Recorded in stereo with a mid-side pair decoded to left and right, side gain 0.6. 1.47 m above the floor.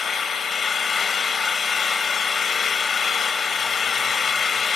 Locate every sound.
0.0 s an engine running: 35° left, 3 m